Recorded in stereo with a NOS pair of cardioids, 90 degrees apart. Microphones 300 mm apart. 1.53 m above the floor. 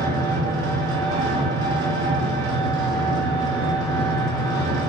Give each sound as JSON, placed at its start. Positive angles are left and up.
{"t": 0.0, "sound": "an engine running", "azimuth_deg": -45, "distance_m": 2.5}